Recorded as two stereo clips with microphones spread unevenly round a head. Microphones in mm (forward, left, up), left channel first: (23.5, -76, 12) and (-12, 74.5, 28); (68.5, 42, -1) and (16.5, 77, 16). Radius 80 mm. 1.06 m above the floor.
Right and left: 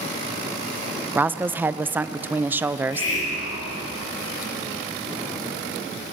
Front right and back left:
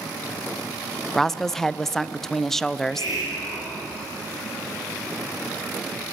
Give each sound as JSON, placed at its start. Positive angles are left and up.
{"t": 1.1, "sound": "a woman speaking", "azimuth_deg": 25, "distance_m": 0.7}
{"t": 2.7, "sound": "a hiss", "azimuth_deg": -85, "distance_m": 6.5}